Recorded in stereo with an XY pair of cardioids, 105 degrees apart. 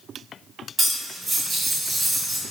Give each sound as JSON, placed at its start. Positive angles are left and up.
{"t": 0.8, "sound": "cutlery clinking", "azimuth_deg": -30, "distance_m": 2.0}